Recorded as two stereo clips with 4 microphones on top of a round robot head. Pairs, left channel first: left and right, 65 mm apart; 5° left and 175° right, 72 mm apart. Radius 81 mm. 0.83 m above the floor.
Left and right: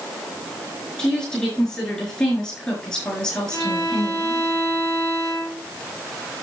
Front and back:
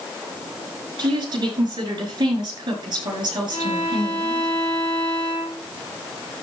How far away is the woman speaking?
About 6 m.